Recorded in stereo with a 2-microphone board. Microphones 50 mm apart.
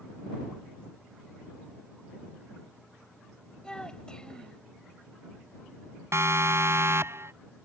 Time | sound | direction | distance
3.6 | a child speaking | 20° left (ahead or behind) | ?
6.1 | a siren | 60° right (ahead or behind) | ?